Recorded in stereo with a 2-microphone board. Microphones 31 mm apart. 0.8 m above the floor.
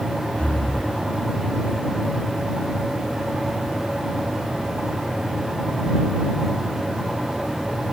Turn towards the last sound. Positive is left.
turn(degrees=45)  # may be behind; listen again after turning